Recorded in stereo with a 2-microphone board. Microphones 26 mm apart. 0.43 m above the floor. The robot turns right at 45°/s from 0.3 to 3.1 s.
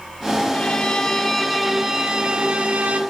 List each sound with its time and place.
0.5 s a violin: 135° left, 0.5 m; by 3.0 s 115° right, 0.5 m